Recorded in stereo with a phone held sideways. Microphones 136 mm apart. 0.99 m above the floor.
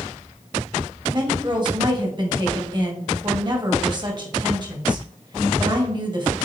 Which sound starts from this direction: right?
A woman speaking, at 1.1 s.